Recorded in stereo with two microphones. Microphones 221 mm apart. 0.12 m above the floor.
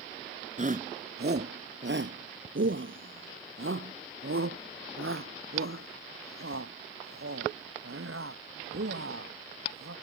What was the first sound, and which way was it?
A shout, 35° right (ahead or behind).